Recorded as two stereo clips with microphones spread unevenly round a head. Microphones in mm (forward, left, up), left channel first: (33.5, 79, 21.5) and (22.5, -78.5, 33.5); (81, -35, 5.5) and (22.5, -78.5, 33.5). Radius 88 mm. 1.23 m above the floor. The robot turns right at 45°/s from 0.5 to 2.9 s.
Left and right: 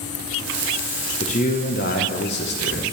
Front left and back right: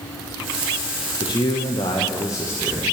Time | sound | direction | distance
1.2 | a man speaking | 40° left | 0.9 m